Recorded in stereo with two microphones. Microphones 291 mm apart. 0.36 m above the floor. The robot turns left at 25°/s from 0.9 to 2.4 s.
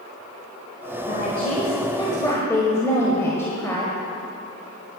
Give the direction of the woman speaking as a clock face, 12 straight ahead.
11 o'clock.